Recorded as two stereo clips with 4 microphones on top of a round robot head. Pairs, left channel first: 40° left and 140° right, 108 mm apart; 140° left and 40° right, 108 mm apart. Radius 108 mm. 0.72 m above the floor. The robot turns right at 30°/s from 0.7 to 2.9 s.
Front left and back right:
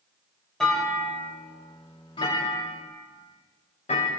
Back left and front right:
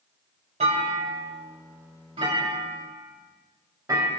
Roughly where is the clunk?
Ahead right.